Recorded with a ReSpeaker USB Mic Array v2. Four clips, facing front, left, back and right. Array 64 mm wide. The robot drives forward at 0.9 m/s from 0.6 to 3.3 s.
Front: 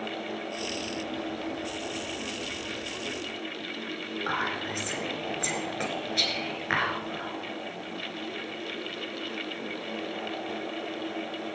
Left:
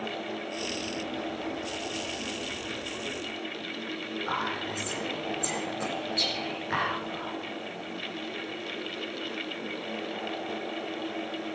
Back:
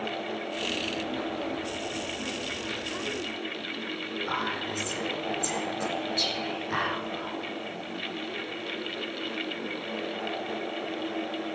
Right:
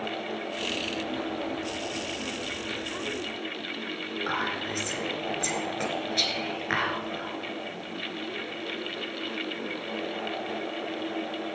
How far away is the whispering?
About 3.5 m.